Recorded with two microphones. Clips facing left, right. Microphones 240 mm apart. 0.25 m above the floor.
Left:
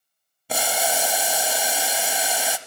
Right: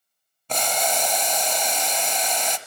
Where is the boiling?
10° left (ahead or behind), 0.5 m.